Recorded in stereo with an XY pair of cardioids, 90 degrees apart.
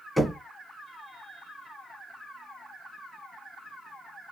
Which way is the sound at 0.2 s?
Straight ahead.